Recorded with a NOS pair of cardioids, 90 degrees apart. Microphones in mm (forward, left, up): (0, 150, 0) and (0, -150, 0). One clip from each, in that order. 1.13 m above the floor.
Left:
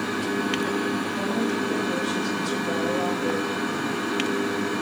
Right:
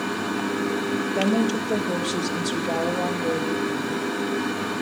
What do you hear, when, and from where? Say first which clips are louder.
1.1 s a woman speaking: right 3 dB; 65° right, 1.7 m; by 4.0 s 10° right, 2.0 m